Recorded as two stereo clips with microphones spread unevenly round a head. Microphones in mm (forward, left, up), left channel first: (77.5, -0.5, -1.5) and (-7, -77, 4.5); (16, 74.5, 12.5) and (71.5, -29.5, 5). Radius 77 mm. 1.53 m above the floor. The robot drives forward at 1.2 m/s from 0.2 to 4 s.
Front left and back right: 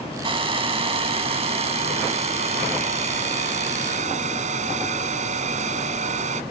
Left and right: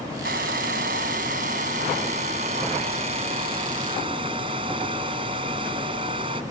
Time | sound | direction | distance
0.2 | a hair dryer | 100° right | ?